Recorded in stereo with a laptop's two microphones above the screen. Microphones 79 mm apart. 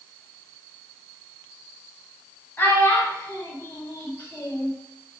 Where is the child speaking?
25° left (ahead or behind), 1.0 m.